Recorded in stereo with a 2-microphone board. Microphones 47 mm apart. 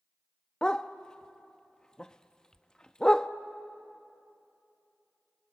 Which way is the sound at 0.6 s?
15° left (ahead or behind).